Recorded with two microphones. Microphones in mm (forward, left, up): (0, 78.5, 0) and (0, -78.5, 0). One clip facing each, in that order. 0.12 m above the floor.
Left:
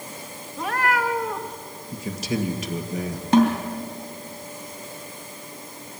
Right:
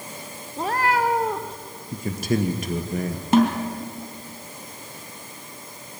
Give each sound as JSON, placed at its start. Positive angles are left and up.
{"t": 0.6, "sound": "a cat meowing", "side_deg": -30, "distance_m": 1.8}
{"t": 1.9, "sound": "a man speaking", "side_deg": -50, "distance_m": 2.0}
{"t": 3.3, "sound": "a snare drum", "side_deg": -5, "distance_m": 3.0}